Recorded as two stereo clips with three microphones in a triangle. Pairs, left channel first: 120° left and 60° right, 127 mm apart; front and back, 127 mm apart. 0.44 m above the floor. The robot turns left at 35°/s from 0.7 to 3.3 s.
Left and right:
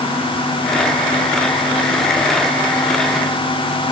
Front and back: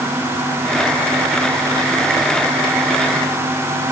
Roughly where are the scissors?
No scissors in this recording.